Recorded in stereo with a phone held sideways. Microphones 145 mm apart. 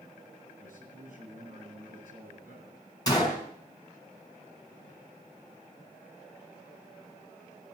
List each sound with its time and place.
0.6 s a man speaking: 65° right (ahead or behind), 10 m
3.1 s a gunshot: 30° left (ahead or behind), 4.5 m